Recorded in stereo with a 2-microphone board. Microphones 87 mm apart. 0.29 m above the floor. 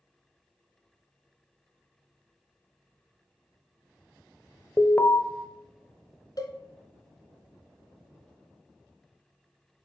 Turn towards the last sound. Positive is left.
turn(degrees=45)  # may be behind; listen again after turning